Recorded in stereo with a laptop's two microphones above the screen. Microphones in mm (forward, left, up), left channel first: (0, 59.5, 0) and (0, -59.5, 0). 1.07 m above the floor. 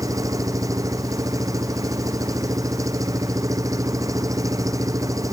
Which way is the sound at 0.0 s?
30° right (ahead or behind).